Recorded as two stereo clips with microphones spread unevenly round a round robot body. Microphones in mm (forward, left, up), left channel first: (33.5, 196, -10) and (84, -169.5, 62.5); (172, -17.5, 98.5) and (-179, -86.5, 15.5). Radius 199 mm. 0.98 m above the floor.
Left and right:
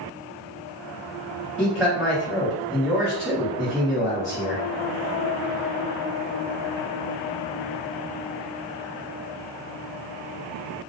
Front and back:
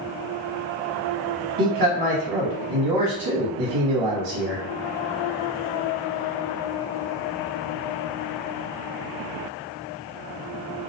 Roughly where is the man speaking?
Behind.